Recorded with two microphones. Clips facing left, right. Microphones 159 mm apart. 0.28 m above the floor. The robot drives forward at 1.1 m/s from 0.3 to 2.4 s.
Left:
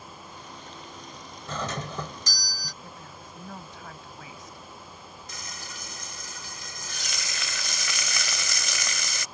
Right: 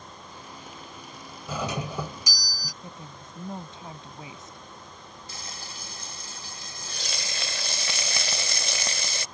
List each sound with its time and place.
1.5 s a doorbell: 10° right (ahead or behind)
2.8 s a woman speaking: 25° right (ahead or behind)
5.3 s frying: 30° right (ahead or behind)